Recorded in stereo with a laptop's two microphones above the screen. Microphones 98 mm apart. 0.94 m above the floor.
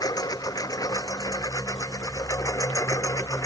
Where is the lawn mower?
40° left (ahead or behind); by 3.5 s 30° left (ahead or behind).